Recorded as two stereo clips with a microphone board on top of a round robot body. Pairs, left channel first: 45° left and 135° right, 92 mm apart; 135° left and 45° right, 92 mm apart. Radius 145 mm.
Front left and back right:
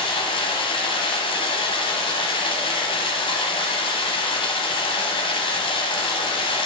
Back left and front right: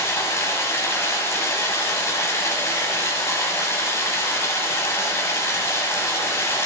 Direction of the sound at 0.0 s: 70° left.